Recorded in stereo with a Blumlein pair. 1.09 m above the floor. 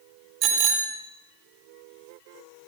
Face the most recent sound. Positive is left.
turn(degrees=-30)